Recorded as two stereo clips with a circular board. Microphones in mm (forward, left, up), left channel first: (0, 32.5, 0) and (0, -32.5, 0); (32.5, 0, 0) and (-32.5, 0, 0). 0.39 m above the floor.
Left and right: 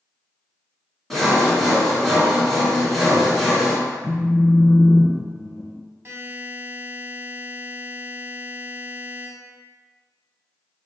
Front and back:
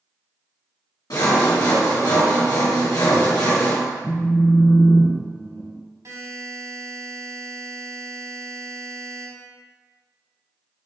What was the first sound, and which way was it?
Sawing, 5° left.